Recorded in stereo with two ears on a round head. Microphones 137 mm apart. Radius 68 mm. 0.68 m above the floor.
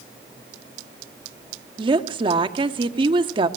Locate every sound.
1.8 s a woman speaking: 35° right (ahead or behind), 1.4 m